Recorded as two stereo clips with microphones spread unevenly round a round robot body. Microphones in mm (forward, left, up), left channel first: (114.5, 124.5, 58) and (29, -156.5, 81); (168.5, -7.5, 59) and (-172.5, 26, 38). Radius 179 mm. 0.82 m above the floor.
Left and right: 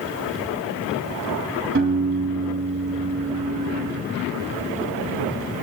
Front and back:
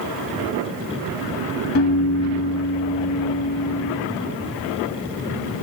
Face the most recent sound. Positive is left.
turn(degrees=-60)